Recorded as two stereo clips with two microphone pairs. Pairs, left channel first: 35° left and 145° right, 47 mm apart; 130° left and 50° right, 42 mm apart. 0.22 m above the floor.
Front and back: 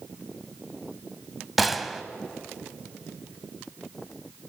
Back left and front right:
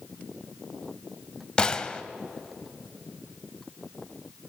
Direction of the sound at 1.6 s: 130° left.